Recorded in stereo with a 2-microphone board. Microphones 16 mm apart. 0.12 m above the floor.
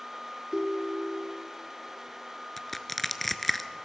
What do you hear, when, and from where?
0.5 s a ringtone: 55° right (ahead or behind), 1.0 m
2.6 s crushing: 10° left (ahead or behind), 0.7 m